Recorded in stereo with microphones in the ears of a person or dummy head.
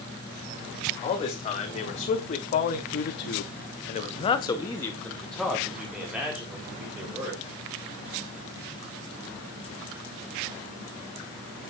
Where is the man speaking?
35° left (ahead or behind), 2 m; by 7.4 s 10° right (ahead or behind), 2.5 m.